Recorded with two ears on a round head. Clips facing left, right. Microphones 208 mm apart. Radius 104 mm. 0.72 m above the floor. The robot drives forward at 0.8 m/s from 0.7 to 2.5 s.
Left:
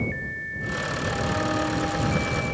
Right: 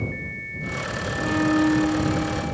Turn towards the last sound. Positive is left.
turn(degrees=-50)  # may be behind; listen again after turning